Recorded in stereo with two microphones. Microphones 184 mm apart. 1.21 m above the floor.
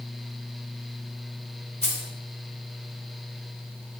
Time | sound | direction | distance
1.8 | keys jangling | 40° left (ahead or behind) | 4 m